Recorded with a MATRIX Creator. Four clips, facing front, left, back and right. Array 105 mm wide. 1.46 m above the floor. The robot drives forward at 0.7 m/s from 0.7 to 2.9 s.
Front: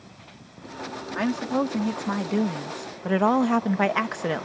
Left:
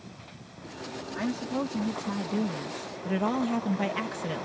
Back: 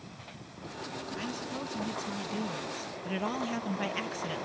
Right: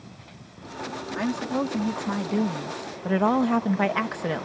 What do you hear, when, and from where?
1.1 s a woman speaking: 15° right; by 4.5 s 30° right